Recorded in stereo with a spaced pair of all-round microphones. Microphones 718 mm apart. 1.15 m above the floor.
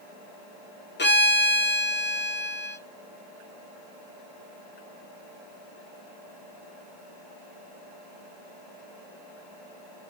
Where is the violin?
15° left (ahead or behind), 0.6 m.